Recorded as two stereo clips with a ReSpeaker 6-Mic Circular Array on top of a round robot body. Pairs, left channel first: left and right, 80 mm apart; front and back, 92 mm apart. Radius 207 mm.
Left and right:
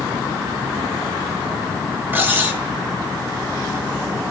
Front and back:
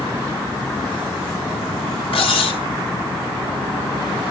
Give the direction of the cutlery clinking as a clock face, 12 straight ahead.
1 o'clock.